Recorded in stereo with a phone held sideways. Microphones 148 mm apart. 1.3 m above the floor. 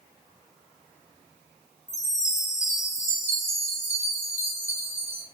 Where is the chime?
50° left (ahead or behind), 5.5 m.